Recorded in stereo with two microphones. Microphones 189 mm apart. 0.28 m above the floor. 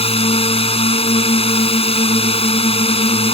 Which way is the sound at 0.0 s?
30° left (ahead or behind).